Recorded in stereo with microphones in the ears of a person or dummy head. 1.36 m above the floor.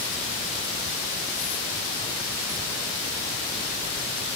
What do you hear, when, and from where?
Only background noise.